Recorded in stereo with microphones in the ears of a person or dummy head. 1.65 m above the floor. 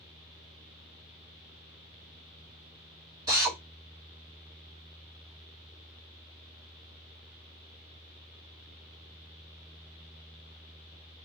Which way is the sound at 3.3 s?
15° right (ahead or behind).